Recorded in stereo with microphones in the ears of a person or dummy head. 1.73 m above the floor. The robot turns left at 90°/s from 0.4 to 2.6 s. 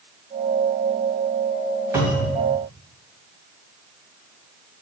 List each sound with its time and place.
1.9 s a cupboard door: 165° right, 2 m; by 2.4 s 155° left, 2 m